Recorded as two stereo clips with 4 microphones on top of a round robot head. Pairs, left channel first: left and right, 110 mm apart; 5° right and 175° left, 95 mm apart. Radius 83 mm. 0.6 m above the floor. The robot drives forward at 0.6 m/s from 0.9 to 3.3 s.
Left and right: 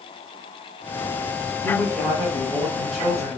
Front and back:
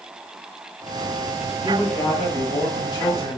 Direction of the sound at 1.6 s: Straight ahead.